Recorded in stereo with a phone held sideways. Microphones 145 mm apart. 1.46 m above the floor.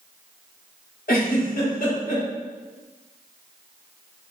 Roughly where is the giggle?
Left.